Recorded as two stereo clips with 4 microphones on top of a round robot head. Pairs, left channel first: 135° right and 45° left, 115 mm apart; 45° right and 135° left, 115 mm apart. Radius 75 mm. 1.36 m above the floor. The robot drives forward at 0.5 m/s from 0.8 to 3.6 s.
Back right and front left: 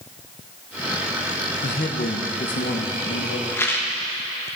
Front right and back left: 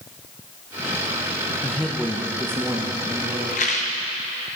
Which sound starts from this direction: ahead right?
A rattle, at 3.5 s.